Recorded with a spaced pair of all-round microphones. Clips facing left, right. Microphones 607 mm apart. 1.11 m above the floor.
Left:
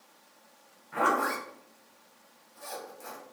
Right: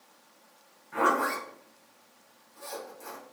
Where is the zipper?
5° left (ahead or behind), 0.6 m.